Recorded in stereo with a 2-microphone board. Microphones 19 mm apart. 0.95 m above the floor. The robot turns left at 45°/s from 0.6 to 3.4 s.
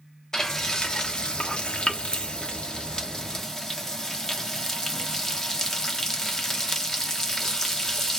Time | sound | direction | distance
0.3 | frying | 155° left | 1.2 m